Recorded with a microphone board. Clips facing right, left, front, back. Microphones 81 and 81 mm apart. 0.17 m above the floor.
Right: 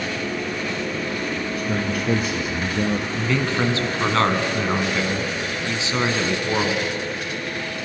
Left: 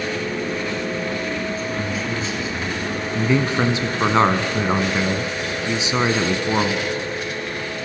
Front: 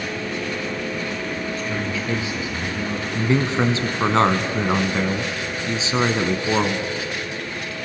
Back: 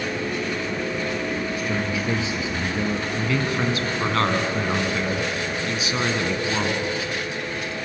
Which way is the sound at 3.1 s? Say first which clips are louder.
Left 7 dB, front 7 dB; 35° left.